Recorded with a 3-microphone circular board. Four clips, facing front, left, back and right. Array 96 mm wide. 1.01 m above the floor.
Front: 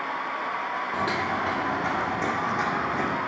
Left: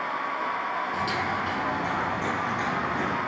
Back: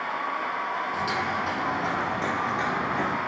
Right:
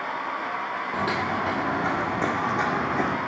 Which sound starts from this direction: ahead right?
Footsteps, at 0.9 s.